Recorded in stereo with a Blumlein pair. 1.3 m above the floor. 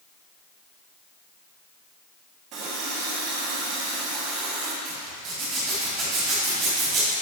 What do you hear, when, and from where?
2.5 s a running tap: 40° right, 1.7 m
4.8 s a zipper: 35° right, 2.5 m